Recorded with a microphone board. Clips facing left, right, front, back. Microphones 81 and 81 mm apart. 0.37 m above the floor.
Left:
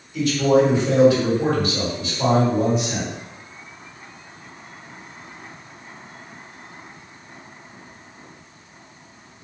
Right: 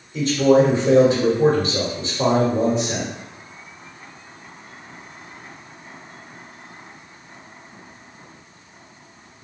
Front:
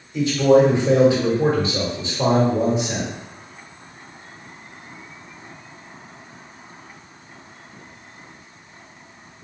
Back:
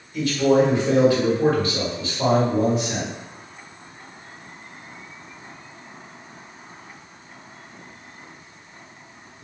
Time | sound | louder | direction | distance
0.1 | a man speaking | right 2 dB, front 3 dB | 55° right | 1.2 m